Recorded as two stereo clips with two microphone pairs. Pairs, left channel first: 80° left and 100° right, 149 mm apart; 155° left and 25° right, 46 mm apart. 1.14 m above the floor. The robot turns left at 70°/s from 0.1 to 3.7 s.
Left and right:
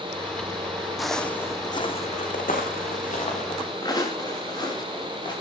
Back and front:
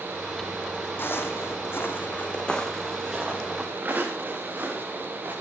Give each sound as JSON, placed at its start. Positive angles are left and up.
{"t": 1.0, "sound": "footsteps", "azimuth_deg": 170, "distance_m": 2.0}